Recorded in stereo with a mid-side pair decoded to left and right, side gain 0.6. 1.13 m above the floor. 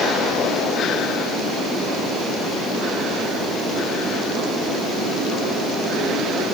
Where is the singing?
I don't hear singing.